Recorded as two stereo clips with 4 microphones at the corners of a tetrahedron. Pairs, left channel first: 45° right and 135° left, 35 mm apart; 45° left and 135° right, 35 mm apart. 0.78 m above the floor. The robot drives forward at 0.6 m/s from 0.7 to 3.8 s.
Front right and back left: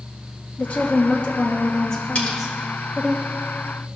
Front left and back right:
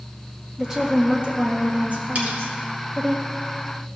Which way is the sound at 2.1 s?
95° right.